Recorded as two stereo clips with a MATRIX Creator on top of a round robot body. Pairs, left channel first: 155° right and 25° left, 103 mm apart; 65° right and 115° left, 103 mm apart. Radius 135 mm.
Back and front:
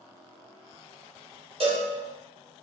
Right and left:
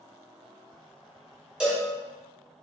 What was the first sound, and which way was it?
A cowbell, 30° left.